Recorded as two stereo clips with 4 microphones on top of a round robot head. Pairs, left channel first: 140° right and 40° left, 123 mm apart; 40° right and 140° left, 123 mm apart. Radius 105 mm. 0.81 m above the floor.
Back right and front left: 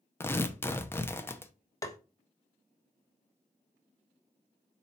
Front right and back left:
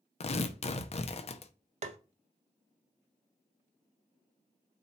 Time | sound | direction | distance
0.2 | tearing paper | 70° right | 0.9 m
1.8 | tapping | 160° left | 1.0 m